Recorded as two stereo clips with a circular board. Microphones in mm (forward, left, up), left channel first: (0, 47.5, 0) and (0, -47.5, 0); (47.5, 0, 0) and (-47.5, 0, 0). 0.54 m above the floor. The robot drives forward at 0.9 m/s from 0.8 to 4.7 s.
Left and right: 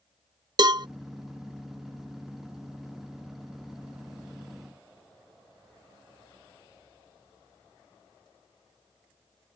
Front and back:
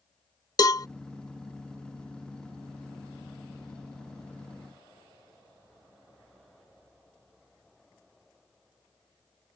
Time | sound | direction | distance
0.6 | a cowbell | 50° right | ?